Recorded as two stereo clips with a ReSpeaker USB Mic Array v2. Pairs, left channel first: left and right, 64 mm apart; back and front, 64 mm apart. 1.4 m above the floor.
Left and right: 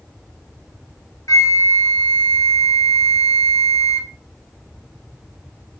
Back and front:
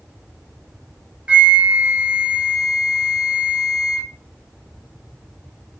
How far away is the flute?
About 1.6 m.